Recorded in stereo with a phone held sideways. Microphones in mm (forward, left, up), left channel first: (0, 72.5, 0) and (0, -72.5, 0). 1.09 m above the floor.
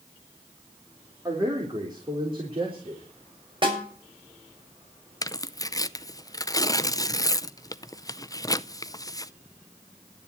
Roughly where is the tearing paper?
Left.